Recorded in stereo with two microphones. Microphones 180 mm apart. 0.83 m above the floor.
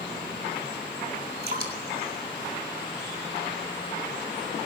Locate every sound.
1.4 s dripping: 60° right (ahead or behind), 3 m